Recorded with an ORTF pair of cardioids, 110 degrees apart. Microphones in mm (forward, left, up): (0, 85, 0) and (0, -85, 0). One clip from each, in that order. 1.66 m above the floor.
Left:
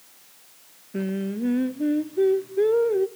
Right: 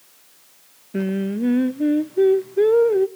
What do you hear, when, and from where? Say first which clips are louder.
0.9 s singing: right 4 dB; 25° right, 0.7 m